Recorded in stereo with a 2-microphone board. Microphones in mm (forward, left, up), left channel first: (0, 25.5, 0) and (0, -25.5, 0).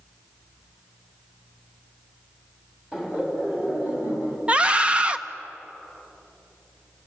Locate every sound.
2.9 s laughter: 15° right (ahead or behind), 4.5 m; by 4.4 s 35° right (ahead or behind), 4.5 m
4.5 s a scream: 25° right (ahead or behind), 0.6 m